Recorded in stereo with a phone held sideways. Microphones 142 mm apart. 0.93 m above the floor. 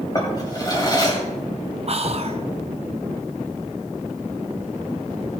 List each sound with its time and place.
0.1 s a drawer: 30° left (ahead or behind), 2 m
1.9 s whispering: 45° right (ahead or behind), 0.9 m